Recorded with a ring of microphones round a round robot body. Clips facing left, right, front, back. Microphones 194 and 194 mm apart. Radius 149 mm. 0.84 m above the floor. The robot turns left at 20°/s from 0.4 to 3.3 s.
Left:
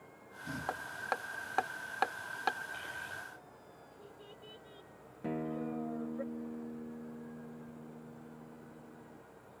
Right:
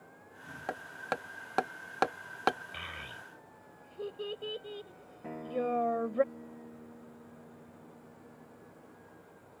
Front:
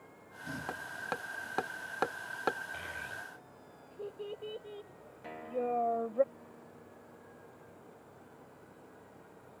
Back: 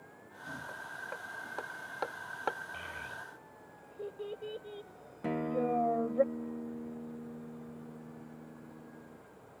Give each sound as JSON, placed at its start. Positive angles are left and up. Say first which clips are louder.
{"t": 0.7, "sound": "hammering", "louder": "right 5 dB, front 5 dB", "azimuth_deg": -25}
{"t": 2.7, "sound": "a child speaking", "louder": "even, even", "azimuth_deg": -80}
{"t": 5.2, "sound": "a guitar", "louder": "right 3 dB, back 4 dB", "azimuth_deg": 155}